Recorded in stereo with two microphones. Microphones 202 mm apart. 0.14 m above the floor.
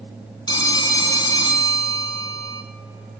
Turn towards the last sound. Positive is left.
turn(degrees=20)  # may be behind; listen again after turning